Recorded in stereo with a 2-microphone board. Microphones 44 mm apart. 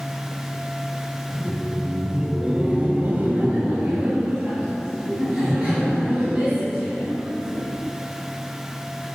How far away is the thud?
I don't hear a thud.